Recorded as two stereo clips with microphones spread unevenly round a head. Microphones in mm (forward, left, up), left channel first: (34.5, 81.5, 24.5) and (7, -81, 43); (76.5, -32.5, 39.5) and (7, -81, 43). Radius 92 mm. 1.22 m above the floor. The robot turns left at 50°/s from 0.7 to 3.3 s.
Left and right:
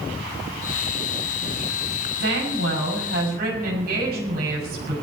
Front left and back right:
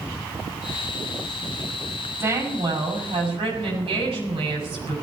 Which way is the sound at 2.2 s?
85° right.